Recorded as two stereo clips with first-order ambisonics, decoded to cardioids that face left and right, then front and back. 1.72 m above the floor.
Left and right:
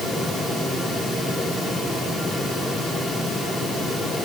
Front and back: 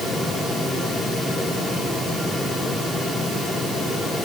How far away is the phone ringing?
No phone ringing in this recording.